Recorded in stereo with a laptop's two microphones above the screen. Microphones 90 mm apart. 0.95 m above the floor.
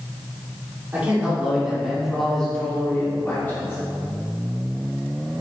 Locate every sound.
0.9 s a man speaking: 15° right (ahead or behind), 2.5 m; by 3.8 s 25° left (ahead or behind), 2.5 m